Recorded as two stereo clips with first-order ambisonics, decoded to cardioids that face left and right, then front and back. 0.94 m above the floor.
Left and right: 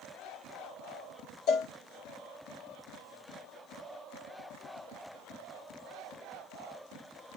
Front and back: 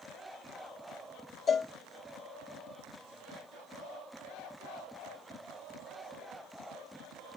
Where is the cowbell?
60° left, 0.9 m.